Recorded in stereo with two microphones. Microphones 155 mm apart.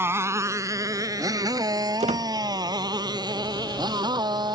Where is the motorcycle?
15° right (ahead or behind); by 4.6 s 25° right (ahead or behind).